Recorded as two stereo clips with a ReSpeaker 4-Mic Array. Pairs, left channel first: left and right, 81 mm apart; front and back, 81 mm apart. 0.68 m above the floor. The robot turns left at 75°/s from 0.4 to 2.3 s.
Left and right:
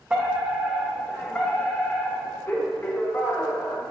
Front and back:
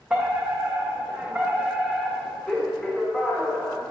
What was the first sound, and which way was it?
A fire alarm, 130° right.